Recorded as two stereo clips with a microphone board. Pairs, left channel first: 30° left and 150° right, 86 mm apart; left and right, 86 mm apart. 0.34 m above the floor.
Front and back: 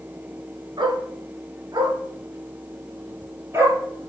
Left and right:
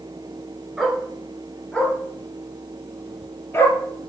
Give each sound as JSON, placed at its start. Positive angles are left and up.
{"t": 0.8, "sound": "a dog barking", "azimuth_deg": -175, "distance_m": 1.8}